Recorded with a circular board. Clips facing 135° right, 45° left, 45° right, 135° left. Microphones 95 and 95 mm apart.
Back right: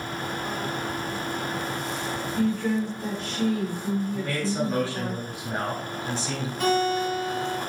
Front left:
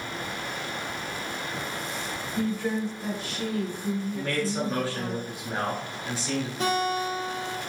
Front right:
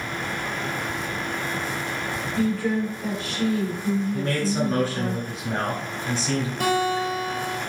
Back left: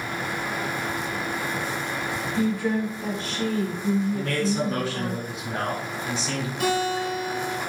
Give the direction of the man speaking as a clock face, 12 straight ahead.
1 o'clock.